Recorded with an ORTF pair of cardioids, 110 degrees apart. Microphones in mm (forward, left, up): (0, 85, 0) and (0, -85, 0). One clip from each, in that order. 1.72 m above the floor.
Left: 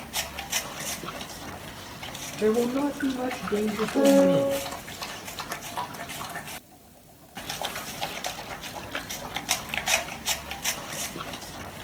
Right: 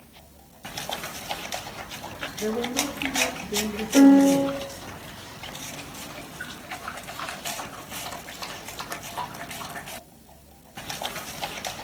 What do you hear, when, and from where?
2.4 s a man speaking: 25° left, 1.1 m
3.9 s a piano: 55° right, 3 m